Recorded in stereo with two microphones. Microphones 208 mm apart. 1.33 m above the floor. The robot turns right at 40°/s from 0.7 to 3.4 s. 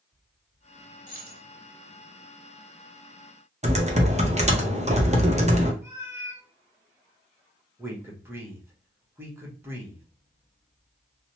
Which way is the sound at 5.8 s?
10° right (ahead or behind).